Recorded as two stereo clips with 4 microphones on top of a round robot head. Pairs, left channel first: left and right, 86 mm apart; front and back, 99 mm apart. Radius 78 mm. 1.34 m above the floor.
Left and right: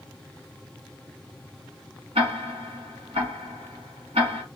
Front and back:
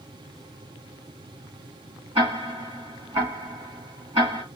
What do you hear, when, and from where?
2.1 s ticking: 125° right, 1.7 m